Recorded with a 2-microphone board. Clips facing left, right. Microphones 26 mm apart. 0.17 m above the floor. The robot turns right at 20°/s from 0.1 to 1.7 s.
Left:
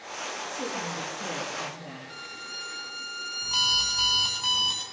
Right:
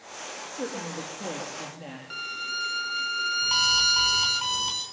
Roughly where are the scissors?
No scissors in this recording.